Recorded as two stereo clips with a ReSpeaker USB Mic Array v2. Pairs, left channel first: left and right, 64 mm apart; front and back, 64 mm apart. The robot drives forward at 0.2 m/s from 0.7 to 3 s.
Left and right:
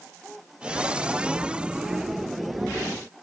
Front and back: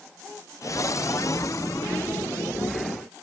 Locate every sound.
Only background noise.